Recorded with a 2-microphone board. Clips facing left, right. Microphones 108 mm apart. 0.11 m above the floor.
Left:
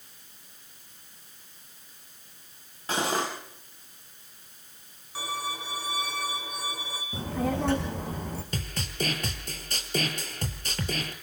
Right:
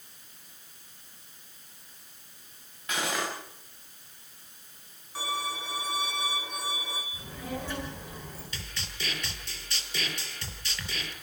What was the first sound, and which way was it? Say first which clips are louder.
Cutlery clinking: left 4 dB; 30° left (ahead or behind).